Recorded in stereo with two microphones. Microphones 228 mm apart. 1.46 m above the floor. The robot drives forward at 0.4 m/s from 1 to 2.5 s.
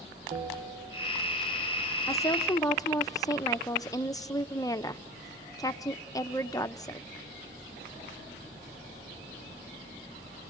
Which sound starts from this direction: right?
A bell, at 0.3 s.